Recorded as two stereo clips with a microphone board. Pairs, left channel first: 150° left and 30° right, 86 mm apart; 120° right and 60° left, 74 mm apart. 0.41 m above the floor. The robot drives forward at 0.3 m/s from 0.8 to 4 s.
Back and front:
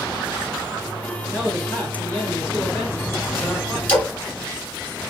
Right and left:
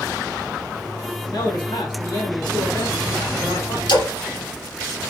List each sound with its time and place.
1.3 s a man speaking: 145° right, 2.5 m; by 3.8 s 150° right, 3.5 m
3.9 s a splash: 135° right, 4 m